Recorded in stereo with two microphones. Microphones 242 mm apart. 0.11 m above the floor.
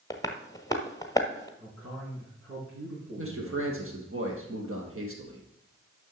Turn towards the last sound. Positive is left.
turn(degrees=-60)  # may be behind; listen again after turning